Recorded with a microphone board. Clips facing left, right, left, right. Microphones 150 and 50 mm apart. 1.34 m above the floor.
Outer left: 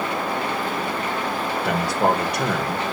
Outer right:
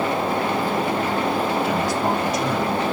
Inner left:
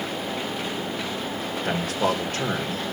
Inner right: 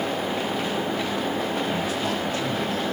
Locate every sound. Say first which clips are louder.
1.6 s a man speaking: outer left 1 dB, inner left 1 dB; 55° left (ahead or behind), 1.9 m